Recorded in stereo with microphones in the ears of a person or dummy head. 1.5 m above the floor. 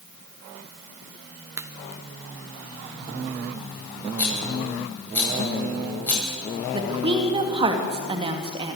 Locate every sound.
1.6 s a crack: 15° right (ahead or behind), 1.1 m
4.2 s a rattle: 15° left (ahead or behind), 9 m
6.7 s a woman speaking: 30° right (ahead or behind), 2.5 m